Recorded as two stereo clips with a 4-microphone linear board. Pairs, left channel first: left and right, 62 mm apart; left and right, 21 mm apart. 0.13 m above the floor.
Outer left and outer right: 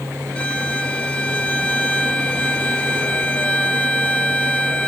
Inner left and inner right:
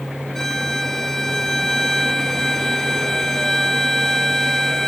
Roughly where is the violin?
Centre.